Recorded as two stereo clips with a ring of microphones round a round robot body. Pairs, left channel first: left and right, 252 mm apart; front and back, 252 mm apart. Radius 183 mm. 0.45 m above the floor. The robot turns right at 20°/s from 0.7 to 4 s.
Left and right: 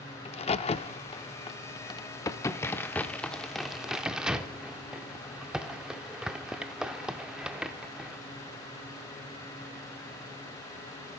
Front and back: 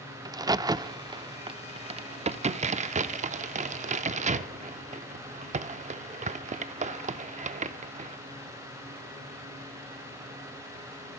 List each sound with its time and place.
0.2 s a crack: 120° left, 0.5 m; by 8.2 s 175° right, 0.5 m